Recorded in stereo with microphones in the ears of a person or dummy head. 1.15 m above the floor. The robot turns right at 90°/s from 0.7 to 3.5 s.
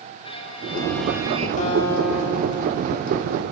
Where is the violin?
150° left, 3.5 m; by 1.5 s 140° right, 3.5 m.